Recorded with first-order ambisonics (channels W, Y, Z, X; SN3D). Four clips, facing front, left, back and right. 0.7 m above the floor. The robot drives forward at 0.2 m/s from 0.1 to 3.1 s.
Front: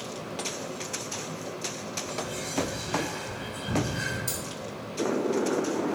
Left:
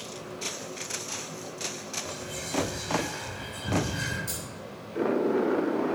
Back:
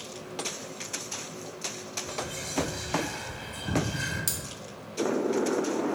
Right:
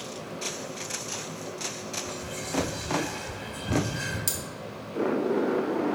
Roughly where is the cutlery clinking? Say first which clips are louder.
Right 4 dB, even; behind right.